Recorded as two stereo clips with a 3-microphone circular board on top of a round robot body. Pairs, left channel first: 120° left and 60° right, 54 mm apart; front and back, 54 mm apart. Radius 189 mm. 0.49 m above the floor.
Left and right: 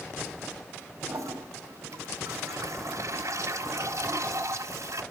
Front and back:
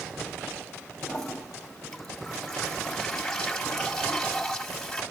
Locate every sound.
1.0 s a toilet flushing: 85° right, 2 m